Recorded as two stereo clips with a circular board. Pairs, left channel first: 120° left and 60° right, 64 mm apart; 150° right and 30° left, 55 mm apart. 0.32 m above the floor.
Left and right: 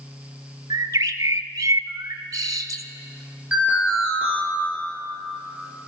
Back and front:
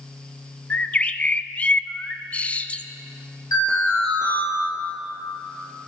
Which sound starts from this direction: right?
A bird, at 0.7 s.